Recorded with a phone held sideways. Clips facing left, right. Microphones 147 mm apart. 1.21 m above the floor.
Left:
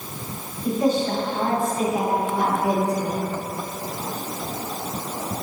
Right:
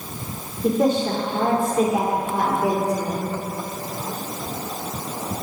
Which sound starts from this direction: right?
A woman speaking, at 0.6 s.